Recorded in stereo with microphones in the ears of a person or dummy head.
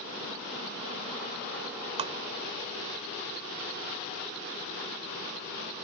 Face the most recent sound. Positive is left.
turn(degrees=-25)  # may be behind; listen again after turning